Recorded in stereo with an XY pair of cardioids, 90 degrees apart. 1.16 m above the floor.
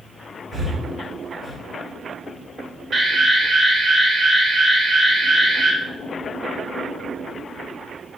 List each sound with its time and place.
0.5 s breathing: 45° right, 1.9 m
2.9 s an alarm: 55° right, 1.9 m